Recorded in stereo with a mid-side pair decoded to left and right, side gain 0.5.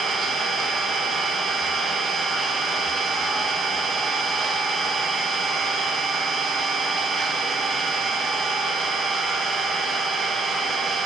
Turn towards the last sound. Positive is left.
turn(degrees=-40)